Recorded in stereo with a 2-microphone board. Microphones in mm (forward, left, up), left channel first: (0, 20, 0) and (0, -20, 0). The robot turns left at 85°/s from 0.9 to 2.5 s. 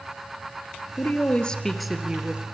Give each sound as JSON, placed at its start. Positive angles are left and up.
{"t": 1.0, "sound": "a woman speaking", "azimuth_deg": 70, "distance_m": 2.0}